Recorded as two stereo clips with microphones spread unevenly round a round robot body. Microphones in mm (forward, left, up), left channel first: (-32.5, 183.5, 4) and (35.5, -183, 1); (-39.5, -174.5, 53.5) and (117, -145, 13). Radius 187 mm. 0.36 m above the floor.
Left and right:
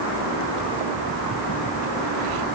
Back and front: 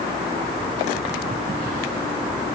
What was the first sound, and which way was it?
Only background noise.